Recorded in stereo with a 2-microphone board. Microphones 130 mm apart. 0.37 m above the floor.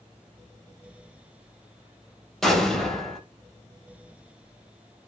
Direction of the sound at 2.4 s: 5° left (ahead or behind).